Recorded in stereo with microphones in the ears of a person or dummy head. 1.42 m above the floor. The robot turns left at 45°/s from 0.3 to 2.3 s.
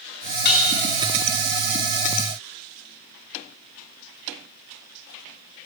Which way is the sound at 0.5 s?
60° left (ahead or behind).